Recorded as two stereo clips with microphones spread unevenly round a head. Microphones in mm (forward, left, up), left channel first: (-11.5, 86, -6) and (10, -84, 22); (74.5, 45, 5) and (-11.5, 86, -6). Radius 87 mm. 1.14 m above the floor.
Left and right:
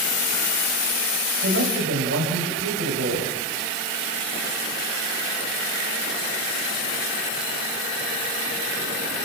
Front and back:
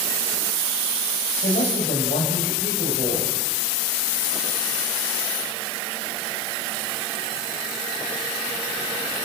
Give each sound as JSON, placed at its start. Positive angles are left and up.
{"t": 1.4, "sound": "a woman speaking", "azimuth_deg": -60, "distance_m": 5.5}